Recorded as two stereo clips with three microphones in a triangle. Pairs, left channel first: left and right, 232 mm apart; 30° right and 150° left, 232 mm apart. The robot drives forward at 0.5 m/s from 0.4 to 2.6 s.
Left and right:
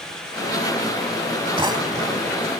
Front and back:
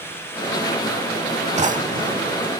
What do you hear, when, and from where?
1.6 s a drawer: 155° right; by 2.4 s 165° right